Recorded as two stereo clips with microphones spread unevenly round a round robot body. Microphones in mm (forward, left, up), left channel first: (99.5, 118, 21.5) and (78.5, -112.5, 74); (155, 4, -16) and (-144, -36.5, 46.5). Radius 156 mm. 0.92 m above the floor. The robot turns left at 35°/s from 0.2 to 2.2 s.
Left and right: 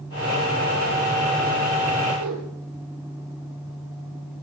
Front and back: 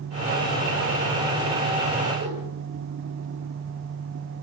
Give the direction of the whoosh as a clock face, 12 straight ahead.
4 o'clock.